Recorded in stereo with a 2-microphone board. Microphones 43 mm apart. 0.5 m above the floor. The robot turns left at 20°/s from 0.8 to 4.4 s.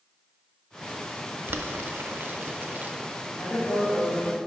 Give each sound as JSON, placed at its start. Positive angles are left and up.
{"t": 1.5, "sound": "boiling", "side_deg": -65, "distance_m": 0.5}
{"t": 3.3, "sound": "a woman speaking", "side_deg": 65, "distance_m": 2.5}